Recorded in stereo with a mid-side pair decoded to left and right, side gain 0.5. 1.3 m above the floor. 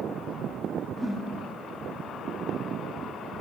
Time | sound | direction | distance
1.0 | a whoosh | 5° right | 1.8 m